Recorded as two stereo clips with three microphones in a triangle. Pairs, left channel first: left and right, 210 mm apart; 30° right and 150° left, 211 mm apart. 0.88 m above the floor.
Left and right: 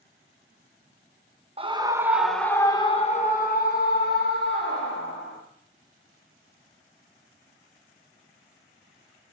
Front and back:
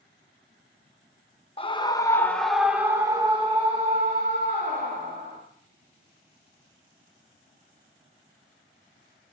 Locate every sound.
1.6 s a scream: 60° right, 0.8 m; by 5.4 s 100° left, 1.7 m